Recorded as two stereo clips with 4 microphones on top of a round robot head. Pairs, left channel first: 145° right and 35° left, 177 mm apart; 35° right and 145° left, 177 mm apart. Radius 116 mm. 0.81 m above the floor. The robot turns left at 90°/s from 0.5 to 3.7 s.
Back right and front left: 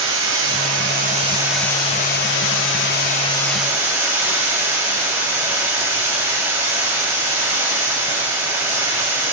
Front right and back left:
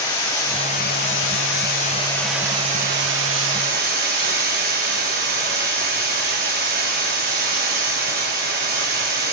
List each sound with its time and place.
0.0 s running water: 40° left, 2 m; by 9.3 s 110° left, 2 m